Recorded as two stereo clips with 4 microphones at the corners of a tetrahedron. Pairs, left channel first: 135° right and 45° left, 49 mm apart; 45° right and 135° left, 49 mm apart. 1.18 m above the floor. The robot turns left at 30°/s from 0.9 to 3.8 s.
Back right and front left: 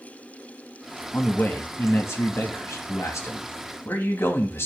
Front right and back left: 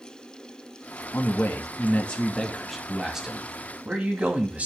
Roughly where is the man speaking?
Right.